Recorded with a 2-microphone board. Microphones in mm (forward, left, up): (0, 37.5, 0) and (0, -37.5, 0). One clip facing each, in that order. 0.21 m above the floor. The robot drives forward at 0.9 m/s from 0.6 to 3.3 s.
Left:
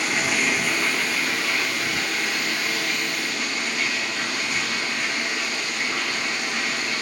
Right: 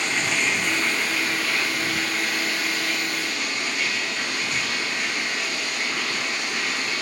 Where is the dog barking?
No dog barking in this recording.